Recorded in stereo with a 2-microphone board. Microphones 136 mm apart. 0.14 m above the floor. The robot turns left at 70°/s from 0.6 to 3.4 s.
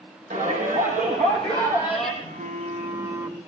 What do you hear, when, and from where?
0.3 s a shout: 85° right, 5.5 m; by 2.1 s 170° left, 5.5 m
2.2 s a phone buzzing: 95° right, 1.9 m; by 3.5 s straight behind, 1.9 m